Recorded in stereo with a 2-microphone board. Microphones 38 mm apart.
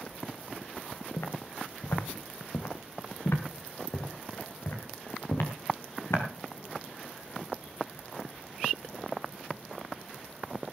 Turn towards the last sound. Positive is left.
turn(degrees=75)  # may be behind; listen again after turning